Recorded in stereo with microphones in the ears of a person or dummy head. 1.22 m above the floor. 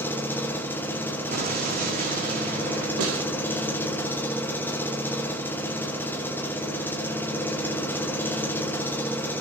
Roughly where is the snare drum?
Right.